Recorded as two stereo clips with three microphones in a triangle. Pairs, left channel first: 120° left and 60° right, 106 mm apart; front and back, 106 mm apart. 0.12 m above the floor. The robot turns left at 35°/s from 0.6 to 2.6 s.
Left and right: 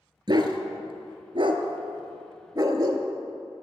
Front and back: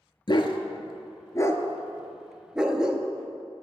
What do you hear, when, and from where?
0.3 s a dog barking: 30° right, 0.6 m; by 3.1 s 100° right, 0.6 m